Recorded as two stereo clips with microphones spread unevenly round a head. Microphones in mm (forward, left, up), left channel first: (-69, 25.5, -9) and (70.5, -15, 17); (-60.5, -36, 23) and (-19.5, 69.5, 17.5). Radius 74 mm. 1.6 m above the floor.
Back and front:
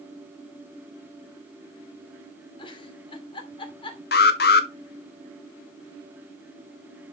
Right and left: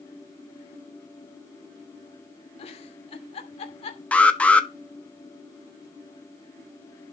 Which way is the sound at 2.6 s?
135° right.